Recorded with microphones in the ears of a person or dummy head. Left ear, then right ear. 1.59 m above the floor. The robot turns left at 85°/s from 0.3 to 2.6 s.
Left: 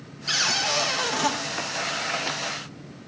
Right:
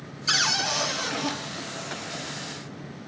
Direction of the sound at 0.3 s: 155° right.